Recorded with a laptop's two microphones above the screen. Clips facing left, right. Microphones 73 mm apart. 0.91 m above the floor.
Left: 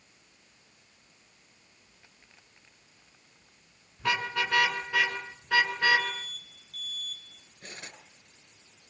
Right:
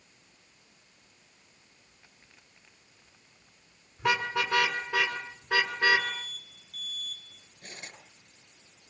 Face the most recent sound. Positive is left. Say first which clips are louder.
# left 1 dB
turn(degrees=70)  # may be behind; listen again after turning